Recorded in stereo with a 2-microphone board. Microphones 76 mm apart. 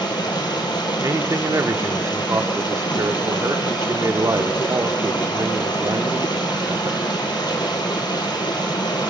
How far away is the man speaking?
About 1.1 m.